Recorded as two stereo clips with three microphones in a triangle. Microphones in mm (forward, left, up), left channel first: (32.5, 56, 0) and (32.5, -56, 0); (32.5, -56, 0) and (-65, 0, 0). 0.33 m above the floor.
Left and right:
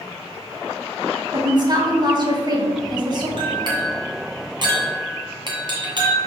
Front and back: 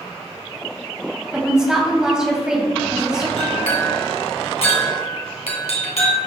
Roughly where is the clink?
Ahead right.